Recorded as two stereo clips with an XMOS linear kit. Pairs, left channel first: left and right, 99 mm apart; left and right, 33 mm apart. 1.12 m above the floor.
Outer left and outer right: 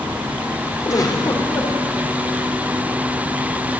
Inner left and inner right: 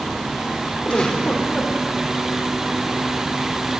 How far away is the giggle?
About 4 m.